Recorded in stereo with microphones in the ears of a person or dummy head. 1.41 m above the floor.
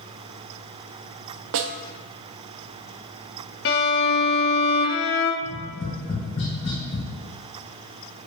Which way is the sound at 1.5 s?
65° right (ahead or behind).